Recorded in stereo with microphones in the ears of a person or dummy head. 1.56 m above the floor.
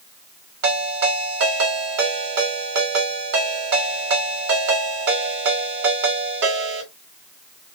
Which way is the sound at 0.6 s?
70° right (ahead or behind).